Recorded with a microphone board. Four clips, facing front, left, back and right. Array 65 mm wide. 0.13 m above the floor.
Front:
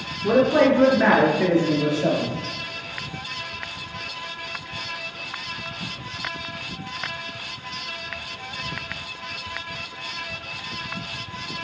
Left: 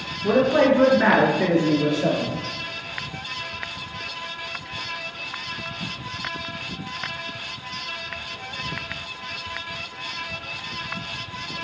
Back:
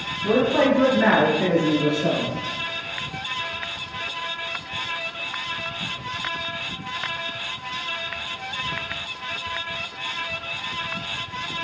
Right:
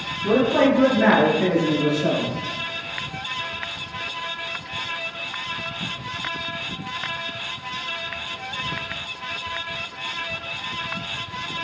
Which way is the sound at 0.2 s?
40° left.